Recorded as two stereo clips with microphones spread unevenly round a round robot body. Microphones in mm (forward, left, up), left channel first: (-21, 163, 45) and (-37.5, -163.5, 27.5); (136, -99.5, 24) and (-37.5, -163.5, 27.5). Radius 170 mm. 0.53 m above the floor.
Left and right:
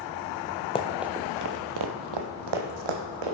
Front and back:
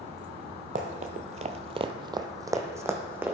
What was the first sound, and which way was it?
Running footsteps, 155° left.